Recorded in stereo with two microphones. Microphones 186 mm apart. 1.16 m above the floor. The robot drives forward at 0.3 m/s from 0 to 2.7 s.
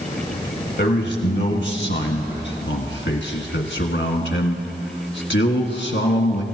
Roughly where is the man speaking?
Left.